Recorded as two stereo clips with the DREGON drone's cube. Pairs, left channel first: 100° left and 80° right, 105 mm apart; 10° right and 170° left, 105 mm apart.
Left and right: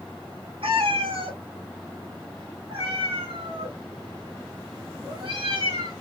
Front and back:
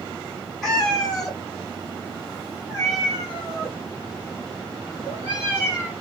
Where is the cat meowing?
95° right, 1.6 m; by 5.9 s 110° right, 4 m.